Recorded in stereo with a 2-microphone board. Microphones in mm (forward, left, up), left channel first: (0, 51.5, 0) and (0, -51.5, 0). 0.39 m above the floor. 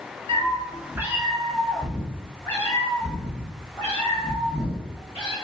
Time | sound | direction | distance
0.3 | a cat meowing | 55° right (ahead or behind) | 0.7 m